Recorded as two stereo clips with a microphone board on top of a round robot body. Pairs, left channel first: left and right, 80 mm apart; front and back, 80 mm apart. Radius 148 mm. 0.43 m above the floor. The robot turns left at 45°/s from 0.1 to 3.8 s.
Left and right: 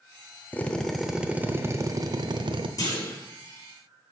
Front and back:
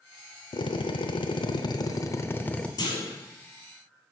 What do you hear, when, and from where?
0.5 s a drill: 20° left, 0.8 m; by 2.7 s 75° right, 0.8 m
2.8 s a clunk: 40° left, 4 m; by 3.2 s 25° left, 4 m